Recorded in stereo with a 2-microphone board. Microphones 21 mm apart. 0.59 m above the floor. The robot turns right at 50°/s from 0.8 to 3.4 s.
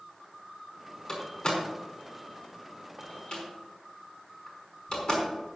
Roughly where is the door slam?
Centre.